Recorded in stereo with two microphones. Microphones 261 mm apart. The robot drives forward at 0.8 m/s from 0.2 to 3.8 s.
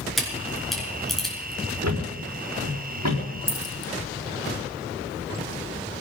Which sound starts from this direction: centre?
A camera shutter, at 0.2 s.